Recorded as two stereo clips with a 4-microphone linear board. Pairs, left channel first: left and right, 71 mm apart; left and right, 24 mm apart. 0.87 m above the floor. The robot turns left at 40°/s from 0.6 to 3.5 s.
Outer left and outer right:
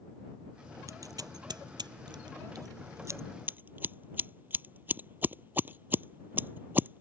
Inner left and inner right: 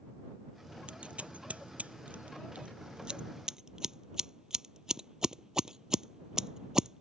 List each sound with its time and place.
0.9 s scissors: 50° right (ahead or behind); by 7.0 s 25° right (ahead or behind)